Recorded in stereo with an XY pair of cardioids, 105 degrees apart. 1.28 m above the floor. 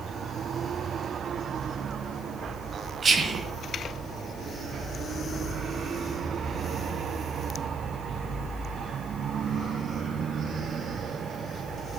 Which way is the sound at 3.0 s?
35° right.